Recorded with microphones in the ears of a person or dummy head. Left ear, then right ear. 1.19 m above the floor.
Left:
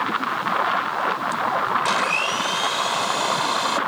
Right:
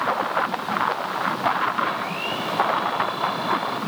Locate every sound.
1.9 s a blender: 85° left